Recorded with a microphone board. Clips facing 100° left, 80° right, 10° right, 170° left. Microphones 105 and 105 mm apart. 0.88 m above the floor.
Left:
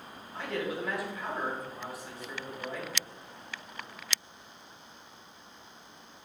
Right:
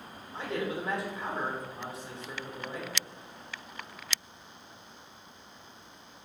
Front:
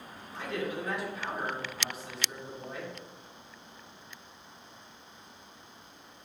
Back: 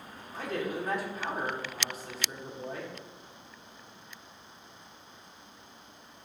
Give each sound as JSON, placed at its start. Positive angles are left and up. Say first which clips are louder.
{"t": 0.3, "sound": "a man speaking", "louder": "right 1 dB, back 1 dB", "azimuth_deg": -145, "distance_m": 2.0}